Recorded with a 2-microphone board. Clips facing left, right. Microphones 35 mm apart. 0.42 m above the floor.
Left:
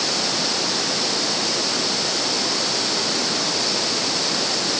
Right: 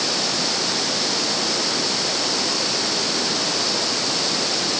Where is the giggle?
I don't hear a giggle.